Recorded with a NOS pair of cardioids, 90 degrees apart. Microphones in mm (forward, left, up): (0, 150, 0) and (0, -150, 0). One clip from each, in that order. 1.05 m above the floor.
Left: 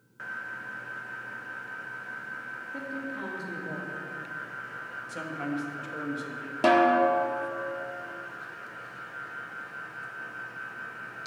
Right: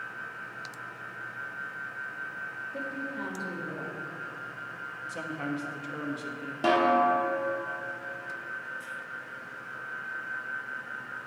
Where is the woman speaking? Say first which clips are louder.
Left 1 dB; 15° left, 1.9 m.